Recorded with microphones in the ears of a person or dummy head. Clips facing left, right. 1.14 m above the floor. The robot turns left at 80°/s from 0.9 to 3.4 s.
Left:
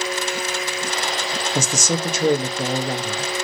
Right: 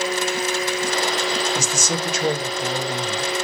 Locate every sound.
1.6 s a man speaking: 135° left, 1.6 m; by 3.3 s 5° right, 1.6 m